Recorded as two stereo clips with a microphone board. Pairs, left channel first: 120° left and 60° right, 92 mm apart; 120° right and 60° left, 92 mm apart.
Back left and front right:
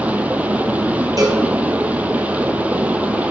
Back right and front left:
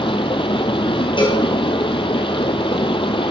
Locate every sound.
0.0 s running water: 135° right, 0.8 m
1.2 s a cowbell: 105° right, 3 m